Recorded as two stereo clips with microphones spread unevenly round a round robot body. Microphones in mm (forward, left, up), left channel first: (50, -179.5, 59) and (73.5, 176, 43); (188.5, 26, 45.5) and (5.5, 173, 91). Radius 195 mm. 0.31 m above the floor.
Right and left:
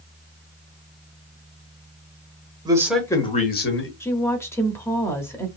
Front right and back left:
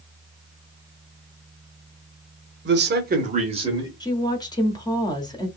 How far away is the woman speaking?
About 1.0 m.